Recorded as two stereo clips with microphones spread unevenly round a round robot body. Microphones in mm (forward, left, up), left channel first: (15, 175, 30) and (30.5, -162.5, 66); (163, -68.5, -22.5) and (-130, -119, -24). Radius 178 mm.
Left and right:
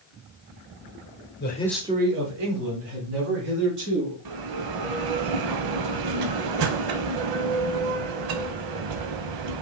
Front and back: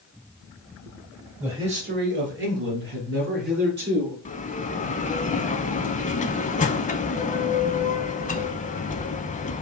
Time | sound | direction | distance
1.4 | a man speaking | 105° left | 1.0 m
4.2 | a bell | 60° right | 0.6 m